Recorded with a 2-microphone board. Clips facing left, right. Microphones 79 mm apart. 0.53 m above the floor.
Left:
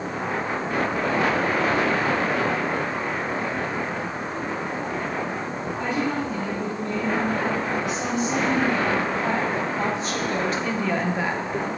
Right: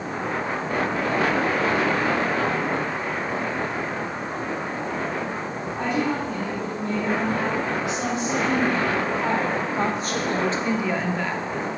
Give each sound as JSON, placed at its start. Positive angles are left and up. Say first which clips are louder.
{"t": 5.8, "sound": "a woman speaking", "louder": "right 2 dB", "side_deg": -80, "distance_m": 3.5}